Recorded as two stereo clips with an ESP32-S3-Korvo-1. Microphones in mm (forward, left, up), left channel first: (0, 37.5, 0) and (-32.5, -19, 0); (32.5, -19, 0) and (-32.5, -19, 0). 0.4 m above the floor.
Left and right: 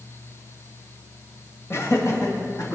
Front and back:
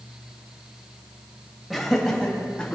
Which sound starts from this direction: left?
Laughter, at 1.7 s.